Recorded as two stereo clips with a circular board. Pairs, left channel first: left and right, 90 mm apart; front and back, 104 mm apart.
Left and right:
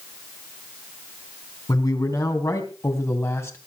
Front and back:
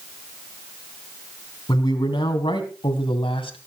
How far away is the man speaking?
About 3.5 m.